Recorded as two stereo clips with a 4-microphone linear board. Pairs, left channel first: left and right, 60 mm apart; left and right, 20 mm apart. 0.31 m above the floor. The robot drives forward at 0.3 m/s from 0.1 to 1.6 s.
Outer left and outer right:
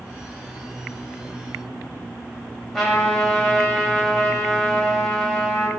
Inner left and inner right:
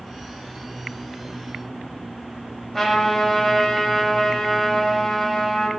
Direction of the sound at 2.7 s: 5° left (ahead or behind).